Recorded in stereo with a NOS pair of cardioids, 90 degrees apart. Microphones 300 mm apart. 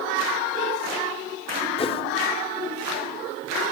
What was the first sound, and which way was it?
A whoosh, 20° left.